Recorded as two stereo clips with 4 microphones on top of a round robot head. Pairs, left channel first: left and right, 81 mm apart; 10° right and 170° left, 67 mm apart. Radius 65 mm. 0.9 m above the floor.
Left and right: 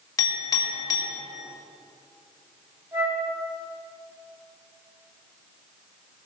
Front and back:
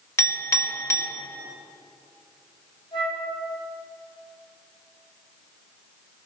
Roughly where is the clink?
Ahead left.